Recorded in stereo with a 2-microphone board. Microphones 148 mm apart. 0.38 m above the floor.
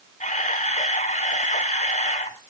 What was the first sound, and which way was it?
A camera shutter, 55° left (ahead or behind).